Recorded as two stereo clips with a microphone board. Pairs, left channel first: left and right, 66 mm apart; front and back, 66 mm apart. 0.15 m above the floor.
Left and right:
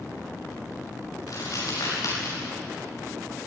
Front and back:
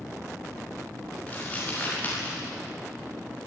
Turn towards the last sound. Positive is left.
turn(degrees=60)